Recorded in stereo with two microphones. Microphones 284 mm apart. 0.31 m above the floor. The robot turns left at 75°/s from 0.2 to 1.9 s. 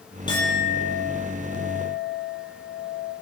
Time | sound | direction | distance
0.3 | a clink | 15° left | 8 m